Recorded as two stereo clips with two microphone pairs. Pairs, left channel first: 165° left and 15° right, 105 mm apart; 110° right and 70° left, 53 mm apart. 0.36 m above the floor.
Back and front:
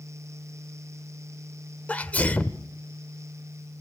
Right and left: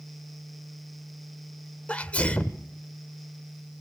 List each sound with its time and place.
1.9 s a sneeze: 140° right, 0.9 m